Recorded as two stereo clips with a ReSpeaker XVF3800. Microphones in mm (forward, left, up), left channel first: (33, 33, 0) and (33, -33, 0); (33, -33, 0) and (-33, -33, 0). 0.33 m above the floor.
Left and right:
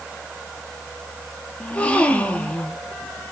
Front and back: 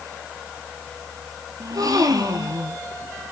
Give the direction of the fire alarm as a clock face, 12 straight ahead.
No fire alarm in this recording.